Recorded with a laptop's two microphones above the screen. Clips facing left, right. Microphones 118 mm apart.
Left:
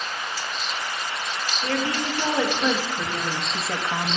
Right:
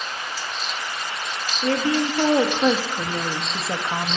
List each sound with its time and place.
1.6 s a woman speaking: 45° right (ahead or behind), 2 m; by 4.2 s 10° right (ahead or behind), 0.8 m